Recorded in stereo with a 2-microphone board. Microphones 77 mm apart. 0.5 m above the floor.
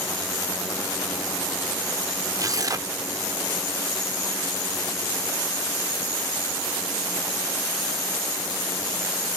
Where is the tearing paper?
45° right (ahead or behind), 0.6 m.